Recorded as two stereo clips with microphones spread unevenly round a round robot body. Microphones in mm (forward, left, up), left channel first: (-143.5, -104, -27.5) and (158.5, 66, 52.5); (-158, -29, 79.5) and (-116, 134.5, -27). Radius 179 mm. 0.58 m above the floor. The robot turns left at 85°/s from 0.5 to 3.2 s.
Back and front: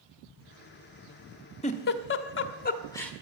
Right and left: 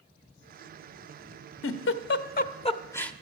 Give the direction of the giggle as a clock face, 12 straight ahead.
3 o'clock.